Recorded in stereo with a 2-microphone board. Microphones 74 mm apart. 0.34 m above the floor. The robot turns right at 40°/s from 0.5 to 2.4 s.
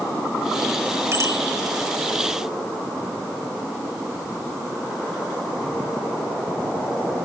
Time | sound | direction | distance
1.1 | a bicycle bell | 40° right (ahead or behind) | 2.5 m